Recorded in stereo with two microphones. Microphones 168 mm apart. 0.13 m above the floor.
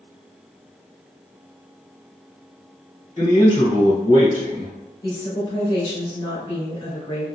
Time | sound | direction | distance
3.2 | a man speaking | 35° left (ahead or behind) | 1.4 m
5.0 | a woman speaking | 30° left (ahead or behind) | 1.3 m